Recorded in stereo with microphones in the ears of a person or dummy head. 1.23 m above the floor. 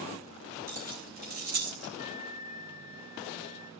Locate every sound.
0.7 s keys jangling: 45° right (ahead or behind), 5.5 m; by 1.9 s 55° right (ahead or behind), 5 m
2.0 s a flute: 20° right (ahead or behind), 0.9 m